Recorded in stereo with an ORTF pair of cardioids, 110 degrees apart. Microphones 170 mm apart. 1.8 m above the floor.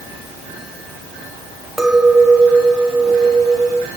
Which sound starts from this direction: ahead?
A clink, at 1.8 s.